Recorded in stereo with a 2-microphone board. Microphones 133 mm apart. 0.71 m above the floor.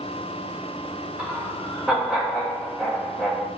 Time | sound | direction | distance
1.2 | laughter | 5° right (ahead or behind) | 2.5 m